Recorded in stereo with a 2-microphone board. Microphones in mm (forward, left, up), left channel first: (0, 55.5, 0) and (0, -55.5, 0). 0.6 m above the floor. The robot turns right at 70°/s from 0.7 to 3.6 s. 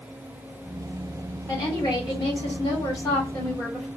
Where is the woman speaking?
35° left, 1.6 m; by 3.9 s 175° right, 1.6 m.